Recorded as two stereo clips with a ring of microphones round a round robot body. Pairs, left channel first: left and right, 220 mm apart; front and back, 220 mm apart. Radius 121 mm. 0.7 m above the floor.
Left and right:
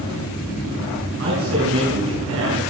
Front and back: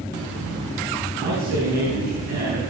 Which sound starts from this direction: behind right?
A man speaking, at 1.2 s.